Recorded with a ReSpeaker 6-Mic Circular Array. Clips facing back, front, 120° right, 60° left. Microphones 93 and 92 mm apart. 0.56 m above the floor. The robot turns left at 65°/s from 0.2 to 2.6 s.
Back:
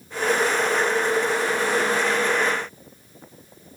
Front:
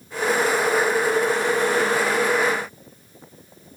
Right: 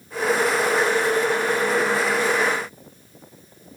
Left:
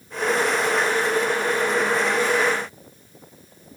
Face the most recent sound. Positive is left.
No sound to turn to.